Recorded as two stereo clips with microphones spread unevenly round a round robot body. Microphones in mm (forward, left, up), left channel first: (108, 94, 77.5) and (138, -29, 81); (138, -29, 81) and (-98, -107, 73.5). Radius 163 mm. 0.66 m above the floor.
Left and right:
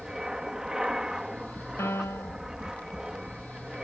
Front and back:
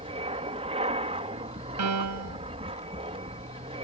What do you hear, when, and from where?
0.0 s an aircraft: 160° right
1.8 s a piano: 175° right